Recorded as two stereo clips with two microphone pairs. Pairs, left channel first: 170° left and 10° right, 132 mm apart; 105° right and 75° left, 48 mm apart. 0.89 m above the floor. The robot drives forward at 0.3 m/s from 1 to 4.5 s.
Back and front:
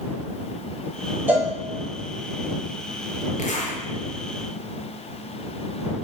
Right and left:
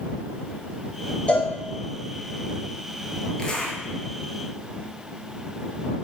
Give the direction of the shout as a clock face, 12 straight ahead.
No shout in this recording.